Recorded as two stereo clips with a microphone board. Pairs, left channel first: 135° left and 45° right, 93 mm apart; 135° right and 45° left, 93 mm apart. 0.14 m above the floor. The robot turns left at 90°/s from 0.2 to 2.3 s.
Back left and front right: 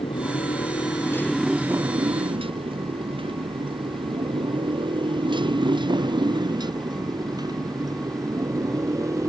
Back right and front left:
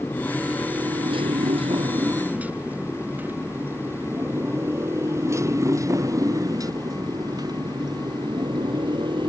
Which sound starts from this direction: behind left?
A motorcycle, at 0.0 s.